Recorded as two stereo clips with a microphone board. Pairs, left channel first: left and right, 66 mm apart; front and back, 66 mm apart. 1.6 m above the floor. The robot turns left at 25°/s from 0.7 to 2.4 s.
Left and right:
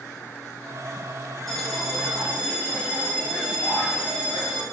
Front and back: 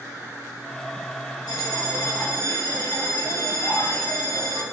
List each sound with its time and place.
1.5 s a bell: 5° left, 0.6 m; by 4.6 s 15° right, 0.6 m